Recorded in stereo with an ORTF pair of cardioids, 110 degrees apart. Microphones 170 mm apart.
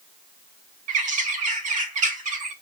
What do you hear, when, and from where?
0.9 s a bird: 55° right, 0.6 m